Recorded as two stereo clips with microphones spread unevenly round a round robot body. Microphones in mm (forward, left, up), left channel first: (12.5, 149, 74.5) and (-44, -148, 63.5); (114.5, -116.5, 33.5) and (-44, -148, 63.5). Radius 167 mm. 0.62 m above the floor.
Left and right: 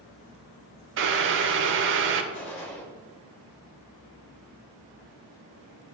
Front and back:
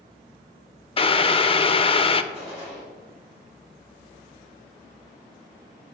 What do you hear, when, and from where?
1.0 s boiling: 50° right, 0.5 m
2.3 s a gunshot: 125° left, 2.5 m